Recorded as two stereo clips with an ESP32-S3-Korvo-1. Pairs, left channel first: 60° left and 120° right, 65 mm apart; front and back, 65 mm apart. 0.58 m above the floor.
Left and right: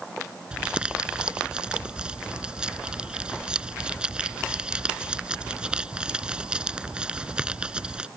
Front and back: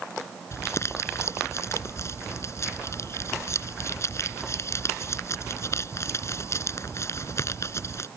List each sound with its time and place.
0.5 s crumpling: 45° right